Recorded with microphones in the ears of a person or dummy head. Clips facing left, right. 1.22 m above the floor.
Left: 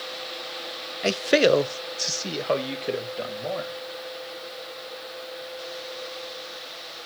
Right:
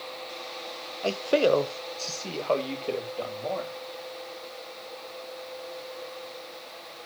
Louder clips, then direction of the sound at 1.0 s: Left 3 dB; 20° left (ahead or behind).